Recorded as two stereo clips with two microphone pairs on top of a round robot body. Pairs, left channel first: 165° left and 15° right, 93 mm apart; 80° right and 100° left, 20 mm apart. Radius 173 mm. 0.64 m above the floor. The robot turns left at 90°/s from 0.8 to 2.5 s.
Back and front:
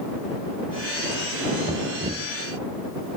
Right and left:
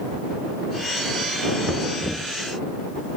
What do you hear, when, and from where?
1.6 s knocking: 5° left; by 2.3 s 55° right